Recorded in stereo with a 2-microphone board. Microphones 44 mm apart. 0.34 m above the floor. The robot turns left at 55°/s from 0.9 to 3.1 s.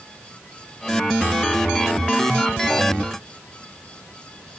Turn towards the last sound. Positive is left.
No sound to turn to.